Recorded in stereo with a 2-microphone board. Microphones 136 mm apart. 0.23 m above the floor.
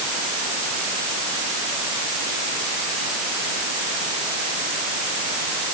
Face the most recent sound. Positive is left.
No sound to turn to.